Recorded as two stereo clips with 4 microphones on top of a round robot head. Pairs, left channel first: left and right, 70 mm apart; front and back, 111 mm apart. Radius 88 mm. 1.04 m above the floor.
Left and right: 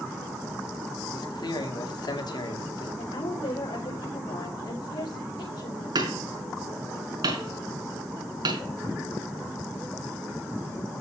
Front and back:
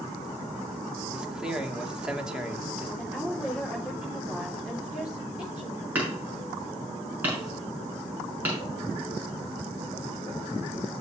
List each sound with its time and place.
1.1 s a man speaking: 95° left, 2.5 m
3.0 s a woman speaking: 95° left, 4 m
6.0 s hammering: 105° right, 5.5 m